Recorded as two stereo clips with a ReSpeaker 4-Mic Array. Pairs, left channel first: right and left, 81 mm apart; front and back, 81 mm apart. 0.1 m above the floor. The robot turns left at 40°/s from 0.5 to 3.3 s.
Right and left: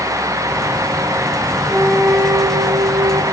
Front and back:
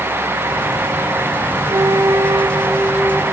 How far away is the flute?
About 0.8 m.